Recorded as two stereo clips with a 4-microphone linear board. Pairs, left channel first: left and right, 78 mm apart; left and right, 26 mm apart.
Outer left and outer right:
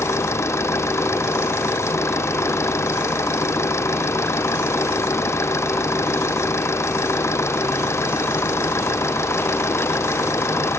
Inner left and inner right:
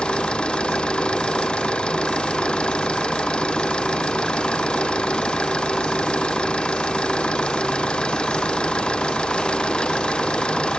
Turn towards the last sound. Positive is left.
turn(degrees=35)  # may be behind; listen again after turning